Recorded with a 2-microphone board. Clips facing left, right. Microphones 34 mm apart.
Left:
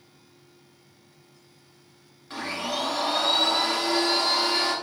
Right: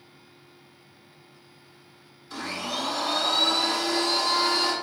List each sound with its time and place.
2.3 s a blender: 50° left (ahead or behind), 1.6 m